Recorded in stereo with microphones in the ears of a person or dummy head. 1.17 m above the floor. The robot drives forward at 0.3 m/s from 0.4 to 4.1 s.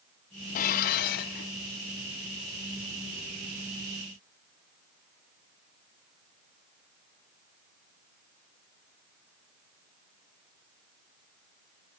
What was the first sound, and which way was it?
Dishes clattering, 45° left (ahead or behind).